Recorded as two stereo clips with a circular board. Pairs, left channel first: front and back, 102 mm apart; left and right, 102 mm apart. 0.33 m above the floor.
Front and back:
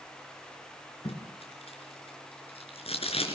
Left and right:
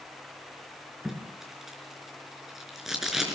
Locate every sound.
1.1 s tape being pulled: 5° right, 4.5 m